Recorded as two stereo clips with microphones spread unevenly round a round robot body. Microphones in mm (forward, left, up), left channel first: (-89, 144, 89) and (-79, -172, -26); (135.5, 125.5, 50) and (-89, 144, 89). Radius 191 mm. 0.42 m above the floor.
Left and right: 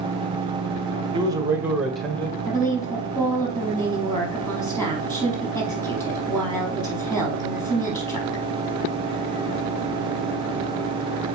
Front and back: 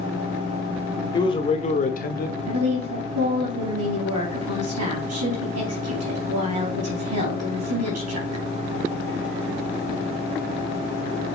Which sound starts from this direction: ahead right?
A man speaking, at 1.1 s.